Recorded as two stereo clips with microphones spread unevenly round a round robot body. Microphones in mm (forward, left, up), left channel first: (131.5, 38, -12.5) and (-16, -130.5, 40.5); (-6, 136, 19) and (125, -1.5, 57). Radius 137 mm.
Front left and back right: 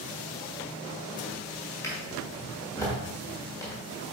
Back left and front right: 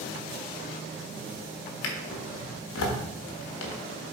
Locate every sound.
1.8 s a drawer: 135° left, 1.2 m